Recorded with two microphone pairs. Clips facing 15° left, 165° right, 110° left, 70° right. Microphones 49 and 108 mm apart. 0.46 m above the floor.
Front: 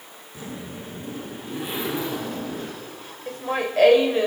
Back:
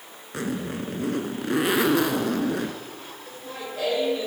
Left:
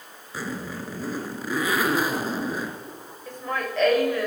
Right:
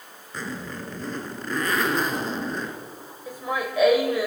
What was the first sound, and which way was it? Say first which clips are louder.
A zipper: back 7 dB, left 1 dB; 170° right.